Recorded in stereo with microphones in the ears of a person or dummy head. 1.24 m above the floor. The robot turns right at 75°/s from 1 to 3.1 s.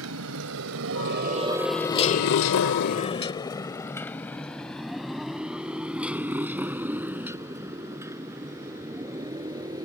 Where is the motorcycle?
80° right; by 9.9 s 15° right (ahead or behind).